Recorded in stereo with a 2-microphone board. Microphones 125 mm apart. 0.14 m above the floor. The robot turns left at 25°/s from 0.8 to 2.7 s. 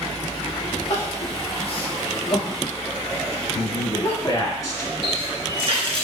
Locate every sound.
0.9 s crying: 70° left (ahead or behind), 1.6 m; by 4.4 s 25° left (ahead or behind), 1.6 m
3.5 s a man speaking: 30° left (ahead or behind), 1.2 m
5.0 s a running tap: 45° right (ahead or behind), 1.4 m